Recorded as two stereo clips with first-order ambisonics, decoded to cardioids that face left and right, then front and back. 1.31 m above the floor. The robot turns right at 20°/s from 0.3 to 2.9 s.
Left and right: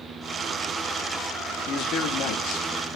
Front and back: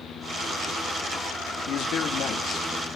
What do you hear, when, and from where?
1.7 s a man speaking: 40° left, 2.5 m; by 3.0 s 65° left, 2.5 m